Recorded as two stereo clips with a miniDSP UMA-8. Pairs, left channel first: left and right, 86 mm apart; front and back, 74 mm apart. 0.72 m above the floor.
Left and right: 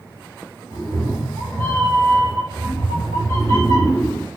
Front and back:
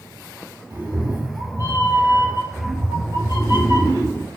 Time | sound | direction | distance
0.7 | a cat meowing | 140° left | 1.8 m